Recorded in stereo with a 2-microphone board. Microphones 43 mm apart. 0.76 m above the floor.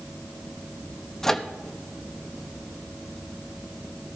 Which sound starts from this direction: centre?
A microwave, at 1.2 s.